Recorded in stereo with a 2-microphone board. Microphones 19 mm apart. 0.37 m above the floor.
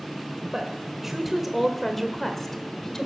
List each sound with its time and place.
0.5 s a woman speaking: 20° right (ahead or behind), 1.7 m; by 3.1 s 30° left (ahead or behind), 1.6 m